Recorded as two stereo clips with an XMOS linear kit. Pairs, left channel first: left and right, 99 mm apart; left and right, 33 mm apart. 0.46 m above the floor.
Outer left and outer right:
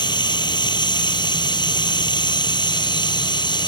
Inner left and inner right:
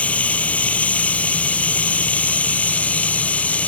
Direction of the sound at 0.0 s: 45° left (ahead or behind).